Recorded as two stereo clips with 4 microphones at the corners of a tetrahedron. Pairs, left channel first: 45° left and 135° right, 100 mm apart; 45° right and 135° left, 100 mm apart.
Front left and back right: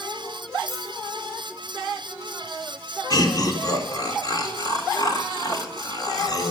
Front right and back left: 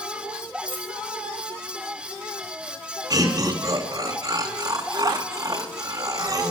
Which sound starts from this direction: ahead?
A dropped coin, at 0.7 s.